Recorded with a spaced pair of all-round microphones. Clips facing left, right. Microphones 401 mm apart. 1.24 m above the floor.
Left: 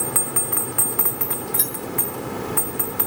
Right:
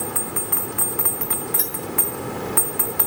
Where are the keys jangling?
45° left (ahead or behind), 3 m.